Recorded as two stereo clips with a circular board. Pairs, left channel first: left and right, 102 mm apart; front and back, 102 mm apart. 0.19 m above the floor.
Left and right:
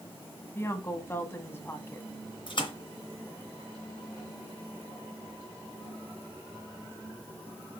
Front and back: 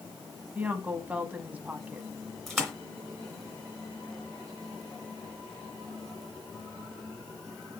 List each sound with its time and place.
0.6 s a woman speaking: 125° left, 1.1 m
2.5 s a splash: 85° left, 2.5 m